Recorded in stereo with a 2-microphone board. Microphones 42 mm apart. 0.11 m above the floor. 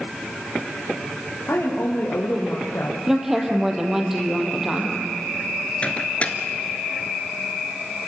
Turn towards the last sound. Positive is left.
turn(degrees=30)  # may be behind; listen again after turning